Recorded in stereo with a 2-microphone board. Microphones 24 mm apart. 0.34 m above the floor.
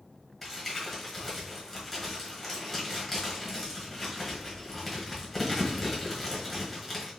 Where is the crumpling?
Centre (ahead or behind), 1.2 m.